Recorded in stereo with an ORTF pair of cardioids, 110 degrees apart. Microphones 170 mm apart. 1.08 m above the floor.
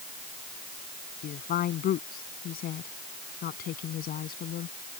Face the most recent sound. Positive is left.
turn(degrees=60)